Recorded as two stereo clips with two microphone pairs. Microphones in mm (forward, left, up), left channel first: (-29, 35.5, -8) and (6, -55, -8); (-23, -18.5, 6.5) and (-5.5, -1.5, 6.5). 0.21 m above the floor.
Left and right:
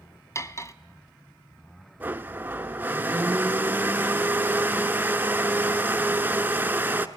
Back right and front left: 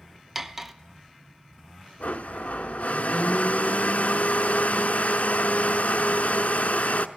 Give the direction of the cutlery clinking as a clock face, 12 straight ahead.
8 o'clock.